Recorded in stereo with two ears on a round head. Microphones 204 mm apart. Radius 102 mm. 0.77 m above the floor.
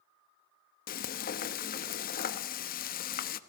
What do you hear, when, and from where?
0.9 s frying: 40° left (ahead or behind), 0.9 m